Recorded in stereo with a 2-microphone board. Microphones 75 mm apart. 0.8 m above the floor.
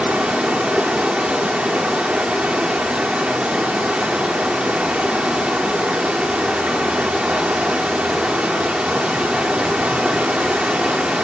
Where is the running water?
15° right (ahead or behind), 1.7 m.